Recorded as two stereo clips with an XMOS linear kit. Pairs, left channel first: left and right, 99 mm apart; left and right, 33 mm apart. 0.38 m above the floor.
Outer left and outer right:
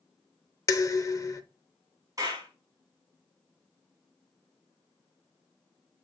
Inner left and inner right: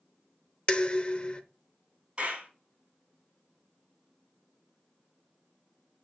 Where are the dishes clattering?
35° left (ahead or behind), 0.7 m.